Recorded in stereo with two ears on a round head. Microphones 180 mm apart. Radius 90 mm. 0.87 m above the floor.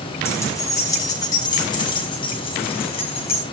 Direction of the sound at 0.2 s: 15° left (ahead or behind).